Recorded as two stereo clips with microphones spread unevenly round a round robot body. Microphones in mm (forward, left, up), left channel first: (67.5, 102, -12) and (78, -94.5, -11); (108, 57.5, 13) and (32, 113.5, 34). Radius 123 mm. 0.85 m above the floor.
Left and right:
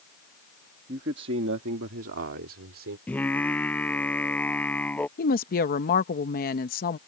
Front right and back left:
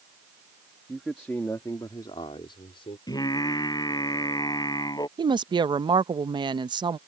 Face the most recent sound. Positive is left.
turn(degrees=110)